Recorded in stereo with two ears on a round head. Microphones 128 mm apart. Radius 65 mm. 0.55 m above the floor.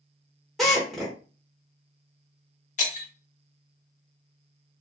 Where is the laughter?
I don't hear laughter.